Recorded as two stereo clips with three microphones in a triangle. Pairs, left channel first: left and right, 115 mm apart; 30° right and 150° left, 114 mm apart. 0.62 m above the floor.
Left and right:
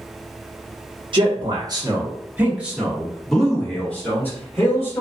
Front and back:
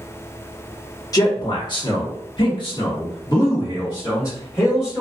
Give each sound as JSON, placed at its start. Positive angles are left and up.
{"t": 1.1, "sound": "a man speaking", "azimuth_deg": -75, "distance_m": 1.1}